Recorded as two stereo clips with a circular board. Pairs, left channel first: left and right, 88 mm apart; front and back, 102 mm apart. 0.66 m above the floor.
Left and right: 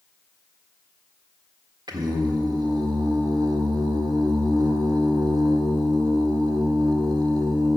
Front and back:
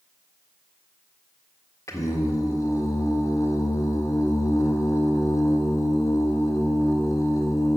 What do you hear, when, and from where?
1.9 s singing: 55° right, 1.6 m